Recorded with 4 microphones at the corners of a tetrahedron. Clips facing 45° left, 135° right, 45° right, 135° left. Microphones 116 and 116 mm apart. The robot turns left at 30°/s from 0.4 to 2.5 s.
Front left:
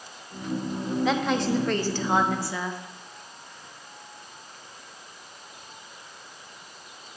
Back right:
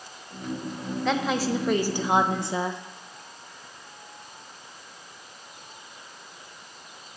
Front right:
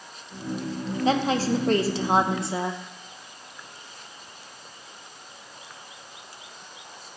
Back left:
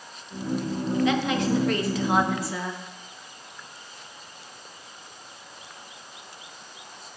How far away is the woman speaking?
About 0.6 m.